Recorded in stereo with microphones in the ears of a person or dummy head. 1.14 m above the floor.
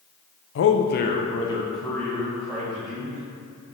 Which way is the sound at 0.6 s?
55° left (ahead or behind).